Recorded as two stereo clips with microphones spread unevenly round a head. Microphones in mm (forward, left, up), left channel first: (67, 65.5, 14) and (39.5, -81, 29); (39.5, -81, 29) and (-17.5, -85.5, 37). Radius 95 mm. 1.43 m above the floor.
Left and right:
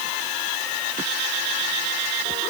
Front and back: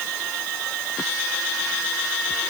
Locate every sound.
Only background noise.